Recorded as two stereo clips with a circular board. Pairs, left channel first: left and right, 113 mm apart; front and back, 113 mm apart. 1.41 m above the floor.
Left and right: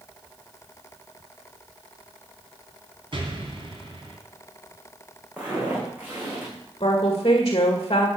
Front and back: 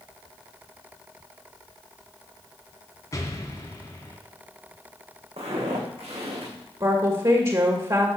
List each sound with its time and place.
3.1 s an explosion: 60° right, 3 m
5.4 s footsteps: 170° right, 5 m; by 6.5 s 160° right, 6 m
6.8 s a woman speaking: 135° left, 1.9 m